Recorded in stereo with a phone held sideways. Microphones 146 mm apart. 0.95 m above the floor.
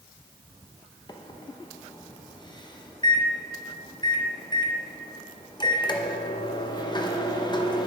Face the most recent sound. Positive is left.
turn(degrees=30)  # may be behind; listen again after turning